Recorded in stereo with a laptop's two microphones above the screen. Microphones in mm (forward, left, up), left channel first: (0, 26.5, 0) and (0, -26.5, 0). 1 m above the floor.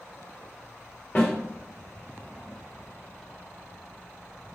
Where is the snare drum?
40° left (ahead or behind), 2 m.